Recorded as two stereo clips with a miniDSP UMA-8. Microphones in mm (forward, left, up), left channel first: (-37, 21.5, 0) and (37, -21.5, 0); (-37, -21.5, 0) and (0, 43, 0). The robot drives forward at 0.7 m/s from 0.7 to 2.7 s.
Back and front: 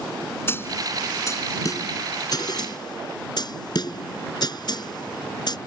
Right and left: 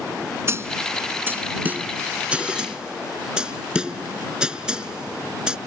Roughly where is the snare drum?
Left.